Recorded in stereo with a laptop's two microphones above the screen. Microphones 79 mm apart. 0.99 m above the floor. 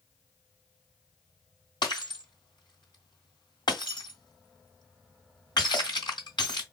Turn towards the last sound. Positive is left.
turn(degrees=75)  # may be behind; listen again after turning